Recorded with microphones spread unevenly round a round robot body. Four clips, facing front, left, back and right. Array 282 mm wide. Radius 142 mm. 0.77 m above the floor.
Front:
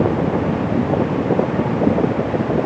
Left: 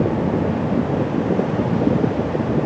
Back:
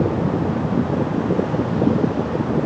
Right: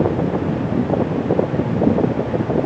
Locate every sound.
Only background noise.